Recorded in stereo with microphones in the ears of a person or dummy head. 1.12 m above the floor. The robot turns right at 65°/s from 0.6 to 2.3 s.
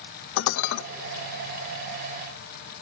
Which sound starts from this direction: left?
Dishes clattering, at 0.4 s.